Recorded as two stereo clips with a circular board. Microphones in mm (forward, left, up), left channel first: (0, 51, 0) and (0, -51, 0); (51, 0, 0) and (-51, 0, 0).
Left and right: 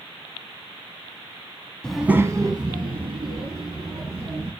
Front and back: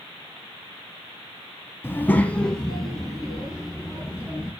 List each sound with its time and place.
1.8 s a child speaking: 25° left, 0.6 m; by 4.5 s 95° right, 3 m